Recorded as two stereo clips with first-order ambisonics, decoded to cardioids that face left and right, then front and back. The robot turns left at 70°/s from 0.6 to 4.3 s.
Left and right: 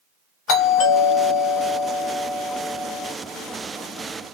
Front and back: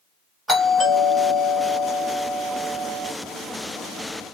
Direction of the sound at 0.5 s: 105° left.